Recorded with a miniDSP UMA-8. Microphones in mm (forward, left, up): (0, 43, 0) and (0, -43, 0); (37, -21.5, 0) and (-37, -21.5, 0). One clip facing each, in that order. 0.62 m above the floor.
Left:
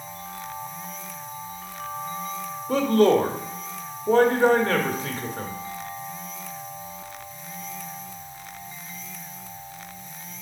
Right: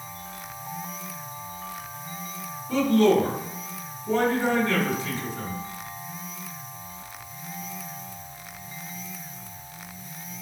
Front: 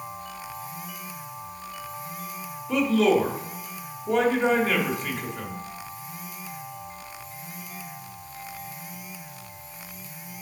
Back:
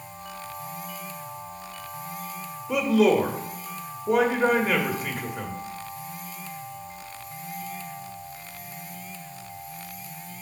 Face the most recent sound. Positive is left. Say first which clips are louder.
# left 1 dB, back 1 dB
turn(degrees=100)